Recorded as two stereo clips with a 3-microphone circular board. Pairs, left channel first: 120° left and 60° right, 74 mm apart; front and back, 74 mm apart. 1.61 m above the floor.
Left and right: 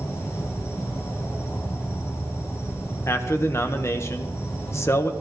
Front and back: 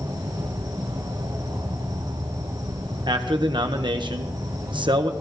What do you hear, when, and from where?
0.0 s an insect: 165° left, 4 m
3.1 s a man speaking: 175° left, 1.5 m